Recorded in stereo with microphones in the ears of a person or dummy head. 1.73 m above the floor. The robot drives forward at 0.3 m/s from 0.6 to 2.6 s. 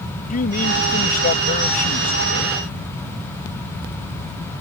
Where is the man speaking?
40° left (ahead or behind); by 2.6 s 35° left (ahead or behind).